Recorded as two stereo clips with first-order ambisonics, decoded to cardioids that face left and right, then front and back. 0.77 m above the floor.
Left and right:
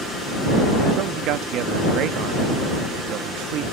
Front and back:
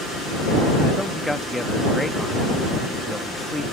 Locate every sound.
1.0 s a man speaking: 85° right